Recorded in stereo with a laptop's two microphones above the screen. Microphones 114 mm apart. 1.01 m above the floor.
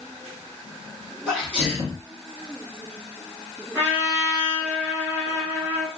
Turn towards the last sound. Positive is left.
turn(degrees=-15)  # may be behind; listen again after turning